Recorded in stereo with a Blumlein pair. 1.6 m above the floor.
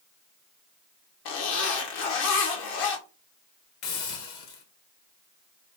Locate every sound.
1.2 s a zipper: 45° left, 1.4 m
3.8 s a hiss: 40° left, 1.6 m